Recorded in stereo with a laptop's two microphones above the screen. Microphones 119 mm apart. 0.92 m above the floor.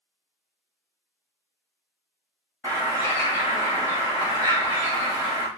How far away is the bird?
About 1.0 m.